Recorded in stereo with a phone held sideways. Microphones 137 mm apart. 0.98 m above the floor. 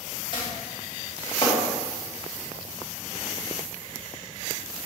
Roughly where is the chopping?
Left.